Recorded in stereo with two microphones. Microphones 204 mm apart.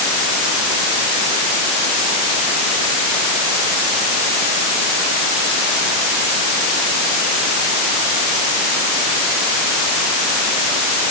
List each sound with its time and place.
Only background noise.